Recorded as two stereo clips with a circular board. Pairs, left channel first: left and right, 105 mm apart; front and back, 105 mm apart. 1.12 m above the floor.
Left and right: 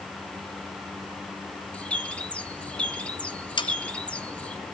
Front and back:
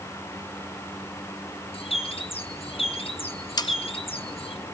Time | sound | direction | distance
1.7 | a bird | 15° left | 1.6 m
3.6 | sawing | 50° left | 1.1 m